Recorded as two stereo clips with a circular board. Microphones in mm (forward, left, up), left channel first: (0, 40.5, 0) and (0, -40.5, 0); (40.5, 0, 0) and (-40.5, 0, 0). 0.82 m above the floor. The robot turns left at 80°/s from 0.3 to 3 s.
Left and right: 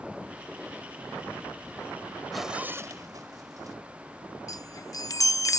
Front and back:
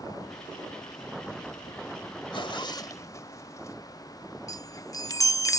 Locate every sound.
2.3 s a zipper: 5° left; by 3.8 s 50° right
4.5 s a chime: 45° left